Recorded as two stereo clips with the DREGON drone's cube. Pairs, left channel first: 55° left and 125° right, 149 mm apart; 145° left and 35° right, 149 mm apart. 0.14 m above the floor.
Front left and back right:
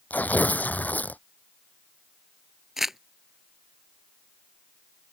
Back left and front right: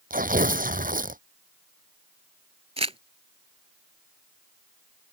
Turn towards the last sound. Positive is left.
turn(degrees=-40)